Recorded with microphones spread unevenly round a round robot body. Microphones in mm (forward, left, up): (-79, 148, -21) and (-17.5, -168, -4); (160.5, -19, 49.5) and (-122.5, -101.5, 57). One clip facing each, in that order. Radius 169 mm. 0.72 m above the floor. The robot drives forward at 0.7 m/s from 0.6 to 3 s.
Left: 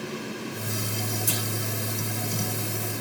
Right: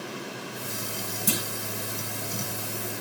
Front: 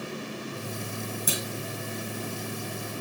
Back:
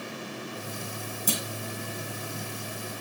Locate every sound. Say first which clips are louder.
1.3 s a clunk: right 2 dB, back 4 dB; 65° right, 4 m